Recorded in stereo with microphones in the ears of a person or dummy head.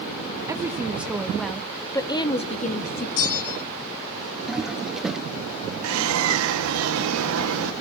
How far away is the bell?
About 0.6 m.